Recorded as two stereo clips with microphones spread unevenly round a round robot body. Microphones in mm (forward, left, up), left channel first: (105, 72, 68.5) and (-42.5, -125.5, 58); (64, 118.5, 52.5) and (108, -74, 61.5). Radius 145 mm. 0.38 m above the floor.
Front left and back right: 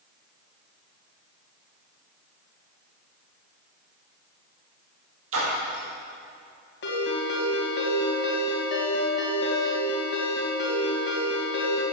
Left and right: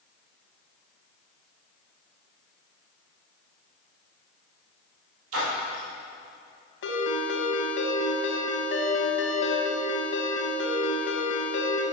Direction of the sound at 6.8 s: 100° left.